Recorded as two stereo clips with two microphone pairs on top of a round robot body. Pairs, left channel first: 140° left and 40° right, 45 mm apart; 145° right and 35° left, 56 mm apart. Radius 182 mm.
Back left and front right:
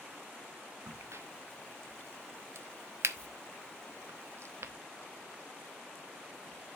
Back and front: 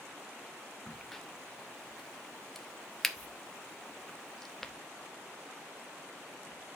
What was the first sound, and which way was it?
A crack, 60° right.